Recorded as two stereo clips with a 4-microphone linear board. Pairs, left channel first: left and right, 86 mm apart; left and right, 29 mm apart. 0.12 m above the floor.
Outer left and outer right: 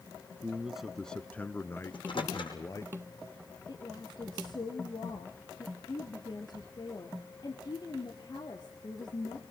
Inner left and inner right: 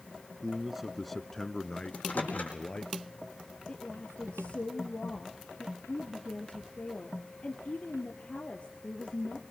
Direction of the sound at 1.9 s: 70° left (ahead or behind).